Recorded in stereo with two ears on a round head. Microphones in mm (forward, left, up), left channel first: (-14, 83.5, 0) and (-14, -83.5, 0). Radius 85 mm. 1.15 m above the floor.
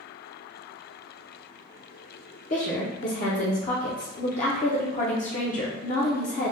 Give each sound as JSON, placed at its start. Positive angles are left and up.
{"t": 2.5, "sound": "a woman speaking", "side_deg": 40, "distance_m": 0.5}